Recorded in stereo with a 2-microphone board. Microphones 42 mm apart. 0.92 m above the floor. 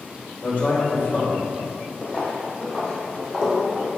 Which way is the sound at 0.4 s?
60° left (ahead or behind).